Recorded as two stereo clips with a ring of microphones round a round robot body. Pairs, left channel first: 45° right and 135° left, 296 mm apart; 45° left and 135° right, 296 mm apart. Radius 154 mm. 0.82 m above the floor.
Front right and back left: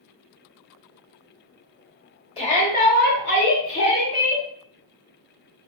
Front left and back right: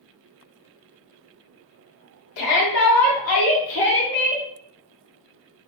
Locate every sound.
2.4 s a shout: 25° left, 1.8 m; by 4.5 s 15° right, 1.9 m